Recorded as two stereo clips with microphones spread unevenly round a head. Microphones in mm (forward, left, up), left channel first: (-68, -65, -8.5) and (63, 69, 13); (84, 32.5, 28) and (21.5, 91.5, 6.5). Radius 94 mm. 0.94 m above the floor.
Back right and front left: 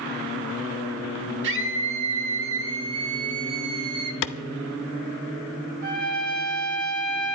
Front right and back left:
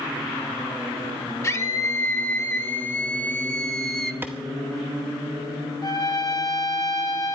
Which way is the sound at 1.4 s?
15° left.